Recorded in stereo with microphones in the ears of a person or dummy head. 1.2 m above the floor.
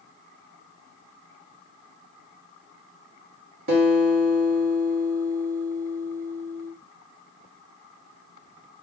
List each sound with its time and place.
3.7 s a guitar: 60° right (ahead or behind), 0.9 m